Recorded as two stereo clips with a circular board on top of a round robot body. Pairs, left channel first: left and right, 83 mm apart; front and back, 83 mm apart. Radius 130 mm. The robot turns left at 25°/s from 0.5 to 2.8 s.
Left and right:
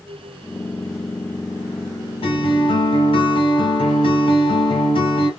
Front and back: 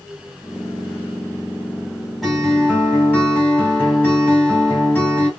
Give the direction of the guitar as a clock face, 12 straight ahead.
9 o'clock.